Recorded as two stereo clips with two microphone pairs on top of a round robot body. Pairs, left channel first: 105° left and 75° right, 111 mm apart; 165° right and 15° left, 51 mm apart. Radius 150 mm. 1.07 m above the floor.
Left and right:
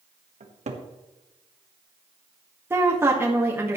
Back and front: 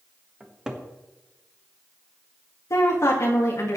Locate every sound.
0.4 s a cupboard door: 60° right, 1.5 m
2.7 s a woman speaking: 140° right, 1.8 m